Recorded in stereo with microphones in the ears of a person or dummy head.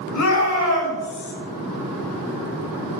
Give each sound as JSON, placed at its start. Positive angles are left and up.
{"t": 0.1, "sound": "a shout", "side_deg": 85, "distance_m": 6.5}